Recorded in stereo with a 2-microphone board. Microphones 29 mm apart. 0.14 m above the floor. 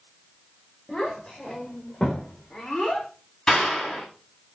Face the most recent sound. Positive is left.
turn(degrees=25)  # may be behind; listen again after turning